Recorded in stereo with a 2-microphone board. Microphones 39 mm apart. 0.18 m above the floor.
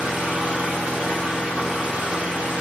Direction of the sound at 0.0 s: 35° right (ahead or behind).